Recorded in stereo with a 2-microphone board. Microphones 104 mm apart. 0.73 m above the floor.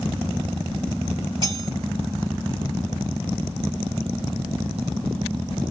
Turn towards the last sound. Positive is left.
turn(degrees=-40)  # may be behind; listen again after turning